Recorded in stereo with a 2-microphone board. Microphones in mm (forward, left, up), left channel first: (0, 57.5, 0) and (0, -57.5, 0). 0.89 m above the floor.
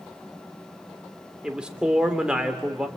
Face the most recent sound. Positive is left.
turn(degrees=-10)  # may be behind; listen again after turning